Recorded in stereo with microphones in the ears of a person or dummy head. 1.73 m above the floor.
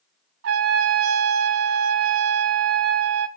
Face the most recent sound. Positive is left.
turn(degrees=-70)  # may be behind; listen again after turning